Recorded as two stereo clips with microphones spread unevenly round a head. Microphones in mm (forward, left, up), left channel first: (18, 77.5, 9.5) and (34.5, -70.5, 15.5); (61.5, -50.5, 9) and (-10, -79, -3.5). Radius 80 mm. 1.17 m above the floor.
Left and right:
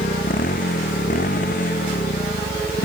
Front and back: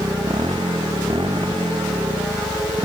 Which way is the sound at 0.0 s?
140° left.